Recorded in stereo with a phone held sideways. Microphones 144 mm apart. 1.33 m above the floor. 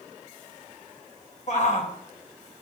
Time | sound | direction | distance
1.5 | a shout | 55° left (ahead or behind) | 2 m